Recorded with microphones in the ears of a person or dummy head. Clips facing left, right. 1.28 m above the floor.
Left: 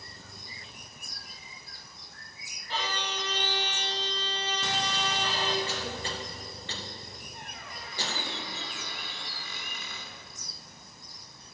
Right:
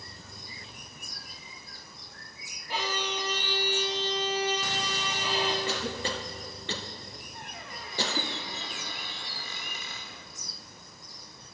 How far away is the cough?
About 0.8 m.